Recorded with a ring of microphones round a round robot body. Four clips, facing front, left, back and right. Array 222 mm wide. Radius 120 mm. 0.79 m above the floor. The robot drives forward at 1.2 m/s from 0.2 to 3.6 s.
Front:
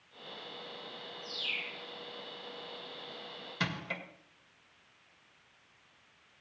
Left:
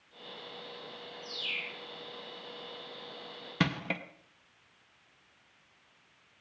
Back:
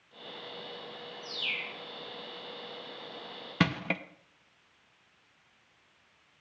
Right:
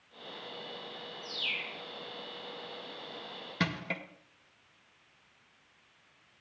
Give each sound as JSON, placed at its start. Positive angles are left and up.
{"t": 1.2, "sound": "a bird", "azimuth_deg": -160, "distance_m": 4.0}
{"t": 3.6, "sound": "crushing", "azimuth_deg": 160, "distance_m": 0.9}